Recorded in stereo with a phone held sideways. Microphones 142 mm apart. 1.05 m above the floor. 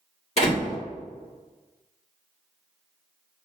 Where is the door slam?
50° left (ahead or behind), 1.8 m.